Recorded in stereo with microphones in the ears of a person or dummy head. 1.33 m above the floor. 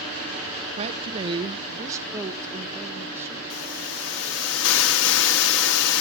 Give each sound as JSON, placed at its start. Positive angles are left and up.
{"t": 0.8, "sound": "a woman speaking", "side_deg": -40, "distance_m": 0.6}
{"t": 3.5, "sound": "a hiss", "side_deg": 70, "distance_m": 1.5}